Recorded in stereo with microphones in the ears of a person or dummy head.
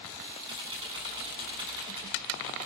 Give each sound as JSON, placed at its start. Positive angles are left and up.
{"t": 0.5, "sound": "typing on a keyboard", "side_deg": -25, "distance_m": 8.5}